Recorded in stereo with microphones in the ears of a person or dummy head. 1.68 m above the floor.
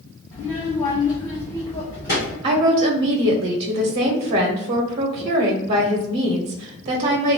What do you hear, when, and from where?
0.3 s a child speaking: 20° left (ahead or behind), 1.0 m; by 2.3 s 35° left (ahead or behind), 2.0 m
2.4 s a woman speaking: 40° right (ahead or behind), 0.7 m